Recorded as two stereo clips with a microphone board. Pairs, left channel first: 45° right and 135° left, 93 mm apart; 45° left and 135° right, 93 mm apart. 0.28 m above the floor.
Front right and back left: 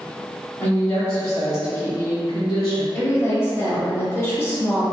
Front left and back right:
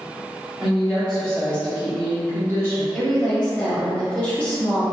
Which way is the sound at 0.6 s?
55° right.